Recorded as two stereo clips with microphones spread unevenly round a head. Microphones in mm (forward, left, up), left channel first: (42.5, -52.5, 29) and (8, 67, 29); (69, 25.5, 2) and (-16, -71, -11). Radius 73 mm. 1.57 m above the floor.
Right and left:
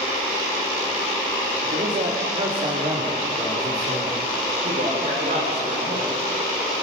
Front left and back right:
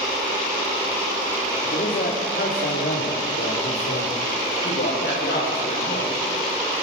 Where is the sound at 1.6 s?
80° left, 3 m; by 4.2 s 40° left, 4.5 m.